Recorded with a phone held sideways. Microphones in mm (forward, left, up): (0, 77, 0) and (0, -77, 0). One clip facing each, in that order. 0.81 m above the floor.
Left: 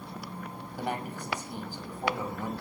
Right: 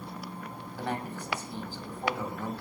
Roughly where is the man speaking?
Centre.